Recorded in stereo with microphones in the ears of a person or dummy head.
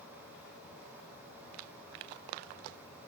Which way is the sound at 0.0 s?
10° right (ahead or behind).